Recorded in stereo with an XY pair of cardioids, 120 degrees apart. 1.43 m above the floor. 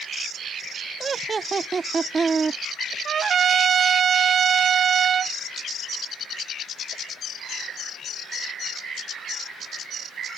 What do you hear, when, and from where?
1.0 s laughter: 30° right
3.0 s a trumpet: 45° right